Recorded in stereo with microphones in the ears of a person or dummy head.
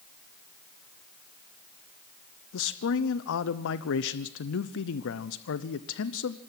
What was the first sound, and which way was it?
A man speaking, 75° left (ahead or behind).